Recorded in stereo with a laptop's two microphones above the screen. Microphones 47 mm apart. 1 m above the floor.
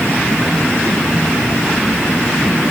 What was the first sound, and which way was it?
Only background noise.